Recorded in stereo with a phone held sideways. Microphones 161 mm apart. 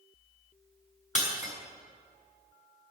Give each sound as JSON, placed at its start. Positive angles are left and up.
{"t": 1.1, "sound": "breaking glass", "side_deg": 50, "distance_m": 6.0}